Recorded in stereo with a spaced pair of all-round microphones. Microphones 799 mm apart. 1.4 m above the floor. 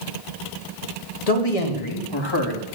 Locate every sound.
1.3 s a man speaking: 50° left (ahead or behind), 2.5 m; by 2.6 s 25° left (ahead or behind), 2.5 m